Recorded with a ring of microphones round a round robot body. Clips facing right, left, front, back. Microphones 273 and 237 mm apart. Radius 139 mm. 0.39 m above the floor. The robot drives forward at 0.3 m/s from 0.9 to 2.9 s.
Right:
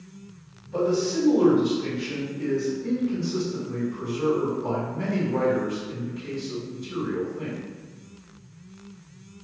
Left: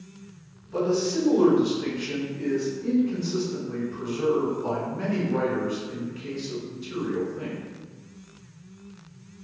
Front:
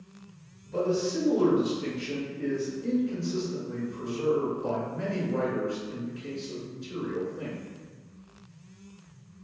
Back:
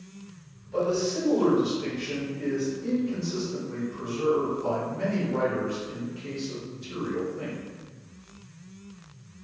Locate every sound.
0.7 s a man speaking: 65° left, 1.6 m; by 7.6 s 95° left, 1.5 m